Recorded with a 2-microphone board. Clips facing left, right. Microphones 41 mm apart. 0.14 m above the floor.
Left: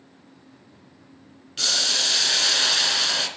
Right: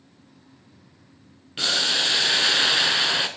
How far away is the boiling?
About 0.5 m.